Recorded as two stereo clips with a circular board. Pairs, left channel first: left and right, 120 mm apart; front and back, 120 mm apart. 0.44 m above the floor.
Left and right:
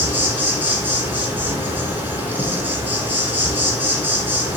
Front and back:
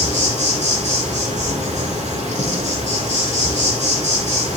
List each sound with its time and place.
0.0 s an insect: 165° right, 1.9 m